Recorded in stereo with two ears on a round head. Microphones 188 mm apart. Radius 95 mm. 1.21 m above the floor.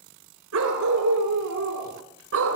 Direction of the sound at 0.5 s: 85° right.